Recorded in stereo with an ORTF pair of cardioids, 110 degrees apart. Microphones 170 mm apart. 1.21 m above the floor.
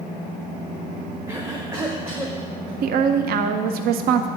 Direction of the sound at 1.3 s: 15° right.